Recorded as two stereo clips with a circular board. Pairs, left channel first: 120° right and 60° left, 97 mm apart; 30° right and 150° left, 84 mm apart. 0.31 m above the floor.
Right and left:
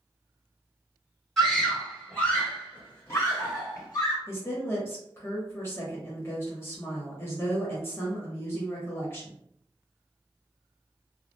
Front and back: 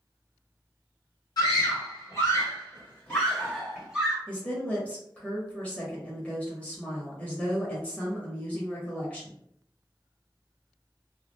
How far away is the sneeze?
No sneeze in this recording.